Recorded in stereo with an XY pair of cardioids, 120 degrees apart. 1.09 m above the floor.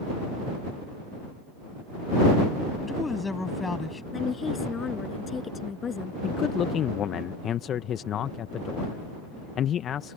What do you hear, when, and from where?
2.8 s a woman speaking: 20° left
4.1 s a woman speaking: 35° left
6.2 s a man speaking: 55° left